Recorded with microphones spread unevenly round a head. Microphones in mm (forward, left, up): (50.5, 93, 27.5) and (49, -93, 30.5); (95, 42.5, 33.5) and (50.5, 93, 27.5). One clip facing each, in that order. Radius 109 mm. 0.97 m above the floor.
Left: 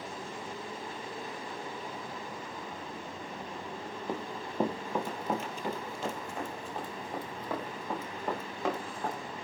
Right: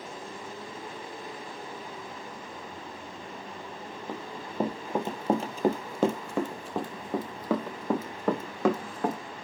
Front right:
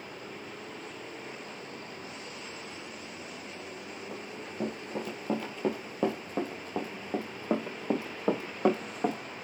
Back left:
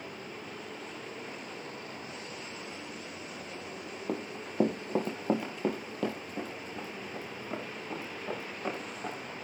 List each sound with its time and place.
4.1 s running footsteps: 170° left, 1.7 m; by 9.2 s 75° right, 3 m